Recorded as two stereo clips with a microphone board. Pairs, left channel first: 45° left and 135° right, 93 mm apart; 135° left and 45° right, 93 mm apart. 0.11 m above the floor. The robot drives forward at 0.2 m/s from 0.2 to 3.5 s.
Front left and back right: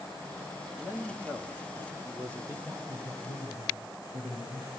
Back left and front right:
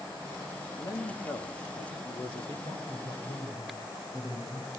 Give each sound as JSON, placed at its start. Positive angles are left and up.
{"t": 0.8, "sound": "a man speaking", "azimuth_deg": 160, "distance_m": 4.5}
{"t": 2.6, "sound": "a man speaking", "azimuth_deg": 150, "distance_m": 9.5}